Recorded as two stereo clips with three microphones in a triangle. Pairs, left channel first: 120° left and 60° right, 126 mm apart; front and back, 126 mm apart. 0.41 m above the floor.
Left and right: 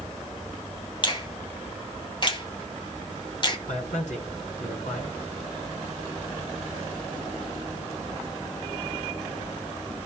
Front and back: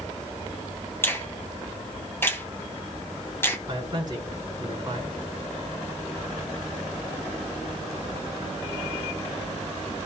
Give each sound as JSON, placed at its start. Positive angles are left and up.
{"t": 1.0, "sound": "a finger snap", "azimuth_deg": 70, "distance_m": 2.0}
{"t": 3.7, "sound": "a man speaking", "azimuth_deg": 125, "distance_m": 4.0}